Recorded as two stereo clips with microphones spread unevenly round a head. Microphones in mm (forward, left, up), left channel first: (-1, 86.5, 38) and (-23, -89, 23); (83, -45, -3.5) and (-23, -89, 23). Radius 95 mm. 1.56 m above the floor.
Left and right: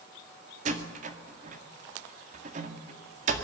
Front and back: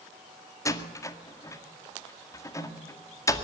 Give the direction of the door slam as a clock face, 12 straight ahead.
1 o'clock.